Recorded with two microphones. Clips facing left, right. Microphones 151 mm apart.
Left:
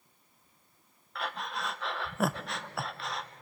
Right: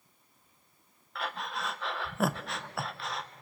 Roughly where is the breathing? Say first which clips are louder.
Even; centre.